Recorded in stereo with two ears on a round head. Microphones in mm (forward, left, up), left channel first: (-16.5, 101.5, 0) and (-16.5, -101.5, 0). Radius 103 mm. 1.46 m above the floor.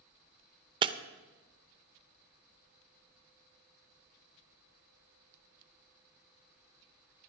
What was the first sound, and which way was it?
Breaking glass, 20° right (ahead or behind).